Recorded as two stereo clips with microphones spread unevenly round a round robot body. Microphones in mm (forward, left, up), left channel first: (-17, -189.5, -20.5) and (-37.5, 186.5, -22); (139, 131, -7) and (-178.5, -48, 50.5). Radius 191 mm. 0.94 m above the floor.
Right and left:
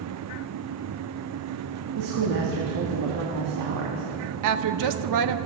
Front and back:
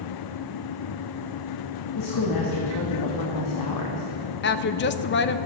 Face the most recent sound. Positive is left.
turn(degrees=70)